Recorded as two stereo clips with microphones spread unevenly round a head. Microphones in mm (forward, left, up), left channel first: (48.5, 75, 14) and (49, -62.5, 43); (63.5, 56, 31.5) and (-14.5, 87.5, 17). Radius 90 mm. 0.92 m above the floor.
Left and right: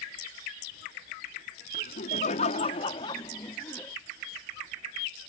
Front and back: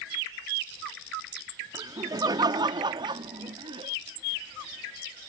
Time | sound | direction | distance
1.7 | laughter | 115° left | ?